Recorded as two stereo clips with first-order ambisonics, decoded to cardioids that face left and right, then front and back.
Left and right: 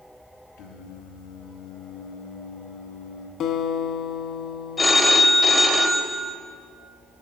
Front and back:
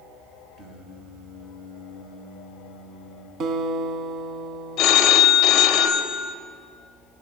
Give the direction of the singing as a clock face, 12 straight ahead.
8 o'clock.